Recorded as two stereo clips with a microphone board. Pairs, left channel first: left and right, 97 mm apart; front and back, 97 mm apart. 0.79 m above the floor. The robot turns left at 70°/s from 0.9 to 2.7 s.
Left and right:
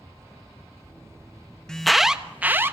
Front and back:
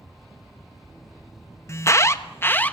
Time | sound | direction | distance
1.7 | an alarm | 15° left | 1.1 m